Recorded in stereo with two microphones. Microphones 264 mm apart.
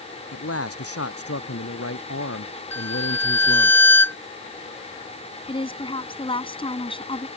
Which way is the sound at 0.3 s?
60° left (ahead or behind).